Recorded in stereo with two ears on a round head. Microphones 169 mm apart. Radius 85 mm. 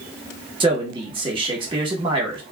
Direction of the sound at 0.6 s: 25° right (ahead or behind).